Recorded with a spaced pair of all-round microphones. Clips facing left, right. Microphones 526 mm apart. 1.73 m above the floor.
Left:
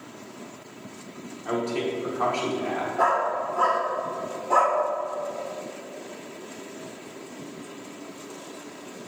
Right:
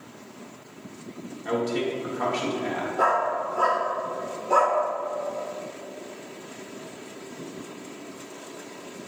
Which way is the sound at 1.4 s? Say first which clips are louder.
Right 1 dB; 40° right (ahead or behind).